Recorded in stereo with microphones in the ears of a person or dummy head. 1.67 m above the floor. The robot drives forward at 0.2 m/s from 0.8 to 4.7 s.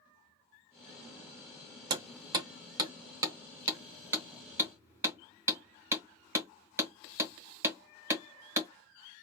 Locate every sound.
1.9 s hammering: 20° right (ahead or behind), 0.7 m; by 8.7 s 10° right (ahead or behind), 1.2 m